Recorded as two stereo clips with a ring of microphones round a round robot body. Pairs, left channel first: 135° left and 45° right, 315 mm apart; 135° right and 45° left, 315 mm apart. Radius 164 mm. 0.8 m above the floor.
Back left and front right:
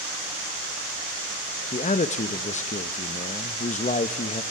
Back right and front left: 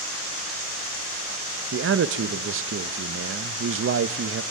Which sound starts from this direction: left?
A man speaking, at 1.7 s.